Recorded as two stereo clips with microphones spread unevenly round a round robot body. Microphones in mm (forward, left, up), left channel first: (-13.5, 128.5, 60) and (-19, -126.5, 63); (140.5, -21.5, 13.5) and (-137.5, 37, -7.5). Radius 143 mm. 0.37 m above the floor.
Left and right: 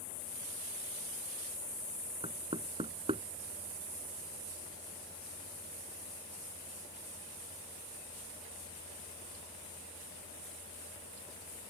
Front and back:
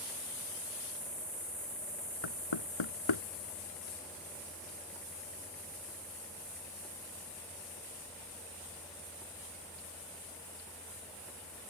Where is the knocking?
20° right.